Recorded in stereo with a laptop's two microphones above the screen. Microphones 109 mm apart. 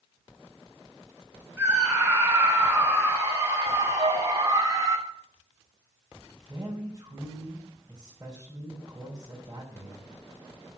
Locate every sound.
1.6 s a scream: 20° right (ahead or behind), 5.5 m; by 5.0 s 35° right (ahead or behind), 2.5 m
4.0 s a flute: 70° right (ahead or behind), 1.7 m
6.5 s a man speaking: 25° right (ahead or behind), 4.5 m